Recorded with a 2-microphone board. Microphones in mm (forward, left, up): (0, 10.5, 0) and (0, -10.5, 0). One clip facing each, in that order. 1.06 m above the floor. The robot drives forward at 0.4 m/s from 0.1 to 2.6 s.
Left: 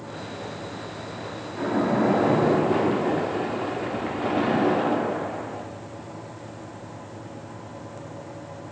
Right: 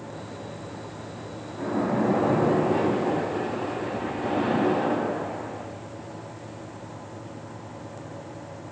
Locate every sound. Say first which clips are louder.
1.6 s a splash: left 3 dB; 55° left (ahead or behind), 1.1 m; by 5.7 s 40° left (ahead or behind), 1.3 m